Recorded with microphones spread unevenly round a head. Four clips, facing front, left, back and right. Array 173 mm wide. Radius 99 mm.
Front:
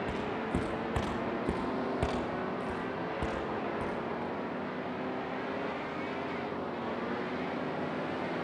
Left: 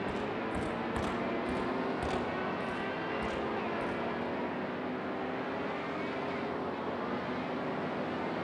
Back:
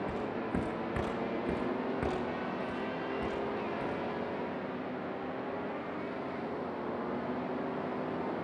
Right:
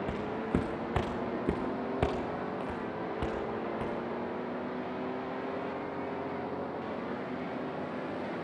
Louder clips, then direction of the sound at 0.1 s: Right 2 dB, front 1 dB; 100° right.